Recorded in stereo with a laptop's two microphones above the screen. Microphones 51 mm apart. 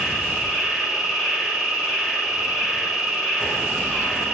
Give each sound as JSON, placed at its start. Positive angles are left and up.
{"t": 0.0, "sound": "an insect", "side_deg": -5, "distance_m": 1.1}